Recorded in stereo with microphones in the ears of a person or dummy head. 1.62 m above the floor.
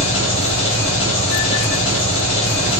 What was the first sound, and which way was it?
An engine running, 35° left (ahead or behind).